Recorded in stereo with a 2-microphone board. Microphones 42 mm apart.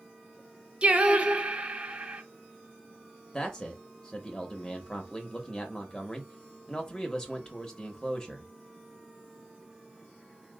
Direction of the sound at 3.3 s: 15° left (ahead or behind).